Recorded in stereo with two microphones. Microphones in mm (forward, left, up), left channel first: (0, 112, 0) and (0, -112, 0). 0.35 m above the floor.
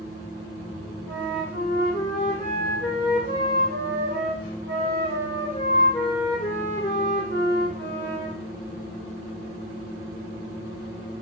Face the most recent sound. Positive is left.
turn(degrees=20)  # may be behind; listen again after turning